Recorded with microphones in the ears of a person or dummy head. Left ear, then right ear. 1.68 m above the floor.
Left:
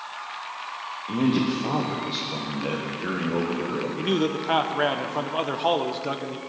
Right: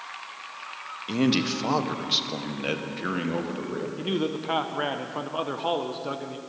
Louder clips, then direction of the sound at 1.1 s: Even; 85° right.